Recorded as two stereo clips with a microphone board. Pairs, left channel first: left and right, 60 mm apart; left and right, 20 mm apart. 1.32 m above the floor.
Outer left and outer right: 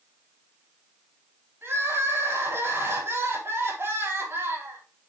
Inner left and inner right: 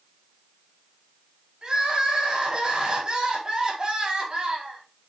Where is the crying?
40° right (ahead or behind), 5.5 m.